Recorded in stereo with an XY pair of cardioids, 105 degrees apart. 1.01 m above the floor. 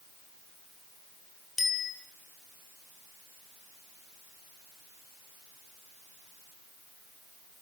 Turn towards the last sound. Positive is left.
turn(degrees=25)